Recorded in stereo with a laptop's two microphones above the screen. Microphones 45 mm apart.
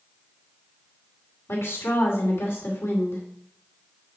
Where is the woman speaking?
75° left (ahead or behind), 2.5 m.